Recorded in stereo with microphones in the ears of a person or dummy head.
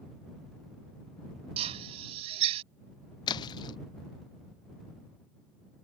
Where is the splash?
25° left (ahead or behind).